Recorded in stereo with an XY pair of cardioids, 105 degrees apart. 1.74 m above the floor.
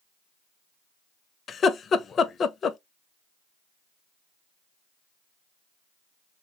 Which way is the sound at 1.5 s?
50° left.